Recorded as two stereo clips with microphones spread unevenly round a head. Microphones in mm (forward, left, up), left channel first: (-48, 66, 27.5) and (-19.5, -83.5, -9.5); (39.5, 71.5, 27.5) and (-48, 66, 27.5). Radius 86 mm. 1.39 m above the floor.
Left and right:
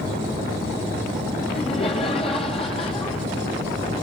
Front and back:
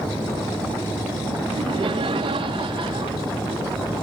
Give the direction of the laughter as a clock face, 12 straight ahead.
7 o'clock.